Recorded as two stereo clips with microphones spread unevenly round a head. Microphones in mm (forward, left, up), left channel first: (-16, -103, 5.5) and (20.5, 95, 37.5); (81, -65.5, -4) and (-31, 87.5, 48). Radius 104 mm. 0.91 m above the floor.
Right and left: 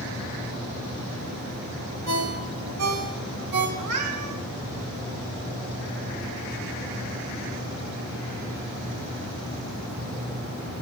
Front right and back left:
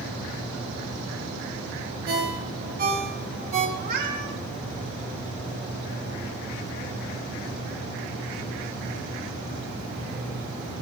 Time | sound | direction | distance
2.1 | a ringtone | 85° left | 3 m
3.8 | a cat meowing | 90° left | 2.5 m